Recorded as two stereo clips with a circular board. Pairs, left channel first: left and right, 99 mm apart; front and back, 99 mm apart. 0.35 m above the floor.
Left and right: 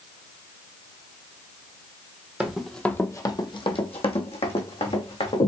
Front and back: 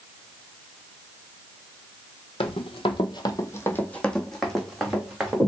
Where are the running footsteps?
10° right, 0.7 m; by 5.5 s 95° left, 1.8 m.